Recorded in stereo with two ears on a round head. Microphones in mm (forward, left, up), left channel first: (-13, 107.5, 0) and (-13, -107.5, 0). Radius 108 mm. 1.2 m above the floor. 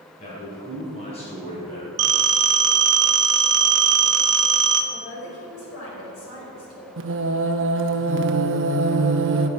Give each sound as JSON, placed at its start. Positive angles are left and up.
{"t": 0.2, "sound": "a man speaking", "side_deg": 30, "distance_m": 4.5}
{"t": 2.0, "sound": "a phone ringing", "side_deg": -65, "distance_m": 1.1}
{"t": 4.9, "sound": "a man speaking", "side_deg": 60, "distance_m": 5.0}
{"t": 7.0, "sound": "singing", "side_deg": -55, "distance_m": 0.9}